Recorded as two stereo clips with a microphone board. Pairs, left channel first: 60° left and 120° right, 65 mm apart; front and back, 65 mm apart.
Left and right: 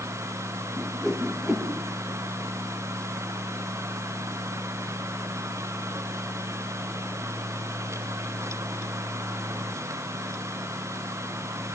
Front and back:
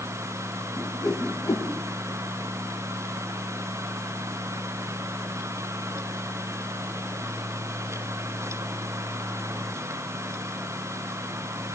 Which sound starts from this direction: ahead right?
A whoosh, at 0.8 s.